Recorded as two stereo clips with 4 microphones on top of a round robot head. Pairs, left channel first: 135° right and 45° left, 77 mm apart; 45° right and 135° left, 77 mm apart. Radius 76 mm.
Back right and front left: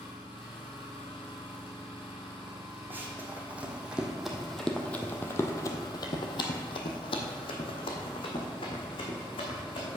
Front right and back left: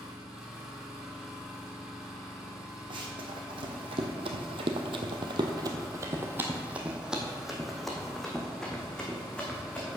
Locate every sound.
0.0 s an engine running: 140° right, 2.5 m
2.9 s running footsteps: 110° left, 1.6 m; by 10.0 s 120° right, 2.5 m